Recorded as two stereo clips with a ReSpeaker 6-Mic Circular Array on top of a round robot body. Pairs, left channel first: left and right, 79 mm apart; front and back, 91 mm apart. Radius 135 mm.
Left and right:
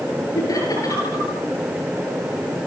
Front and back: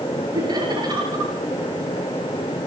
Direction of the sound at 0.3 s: 135° left.